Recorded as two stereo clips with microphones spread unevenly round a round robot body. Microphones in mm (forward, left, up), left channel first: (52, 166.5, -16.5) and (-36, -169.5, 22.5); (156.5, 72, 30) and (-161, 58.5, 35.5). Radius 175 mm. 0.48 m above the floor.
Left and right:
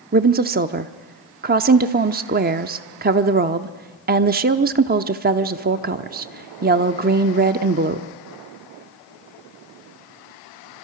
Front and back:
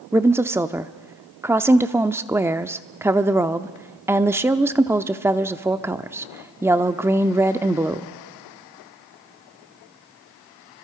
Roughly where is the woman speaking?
Right.